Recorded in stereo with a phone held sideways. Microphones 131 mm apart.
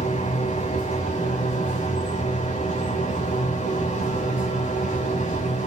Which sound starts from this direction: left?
A machine running, at 0.0 s.